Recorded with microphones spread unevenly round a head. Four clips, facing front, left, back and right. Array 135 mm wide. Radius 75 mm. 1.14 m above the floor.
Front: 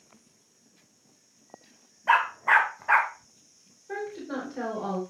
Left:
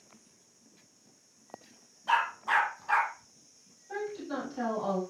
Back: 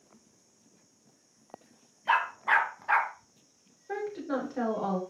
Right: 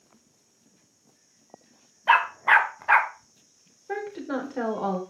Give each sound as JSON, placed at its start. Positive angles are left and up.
{"t": 2.1, "sound": "a dog barking", "azimuth_deg": -60, "distance_m": 1.2}
{"t": 3.9, "sound": "a woman speaking", "azimuth_deg": -90, "distance_m": 3.5}